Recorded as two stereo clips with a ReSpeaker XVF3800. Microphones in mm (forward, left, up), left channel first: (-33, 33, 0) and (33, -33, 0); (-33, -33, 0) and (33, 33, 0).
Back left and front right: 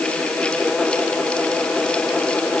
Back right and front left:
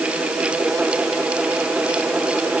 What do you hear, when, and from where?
Only background noise.